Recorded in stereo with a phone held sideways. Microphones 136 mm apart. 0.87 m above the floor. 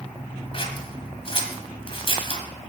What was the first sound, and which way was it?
Scissors, 40° left (ahead or behind).